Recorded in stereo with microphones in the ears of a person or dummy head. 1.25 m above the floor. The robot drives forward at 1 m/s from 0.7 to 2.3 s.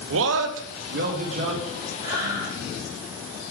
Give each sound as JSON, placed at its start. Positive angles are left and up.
{"t": 0.1, "sound": "a man speaking", "side_deg": -65, "distance_m": 0.5}
{"t": 2.0, "sound": "breathing", "side_deg": -20, "distance_m": 1.9}